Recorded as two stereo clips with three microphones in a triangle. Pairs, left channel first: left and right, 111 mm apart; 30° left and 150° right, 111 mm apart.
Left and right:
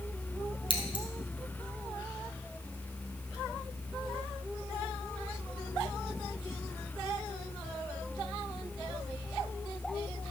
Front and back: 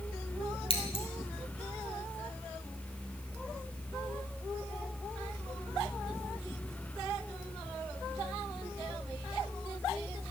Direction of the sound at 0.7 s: 50° left.